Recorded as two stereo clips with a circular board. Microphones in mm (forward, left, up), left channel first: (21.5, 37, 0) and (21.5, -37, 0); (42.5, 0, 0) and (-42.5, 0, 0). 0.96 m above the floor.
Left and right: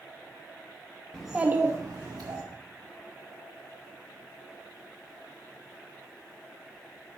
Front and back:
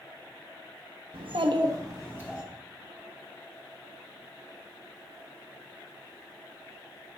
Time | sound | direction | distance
1.1 | a child speaking | 175° left | 0.9 m